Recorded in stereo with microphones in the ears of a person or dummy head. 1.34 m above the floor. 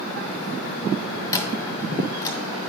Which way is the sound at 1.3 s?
25° left (ahead or behind).